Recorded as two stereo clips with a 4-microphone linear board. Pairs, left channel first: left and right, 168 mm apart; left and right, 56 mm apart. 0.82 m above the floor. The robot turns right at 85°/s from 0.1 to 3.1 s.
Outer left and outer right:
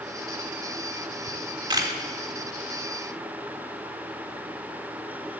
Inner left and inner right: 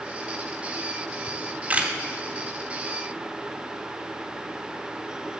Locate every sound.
1.3 s a camera shutter: 40° right (ahead or behind), 0.8 m; by 1.9 s 15° right (ahead or behind), 0.8 m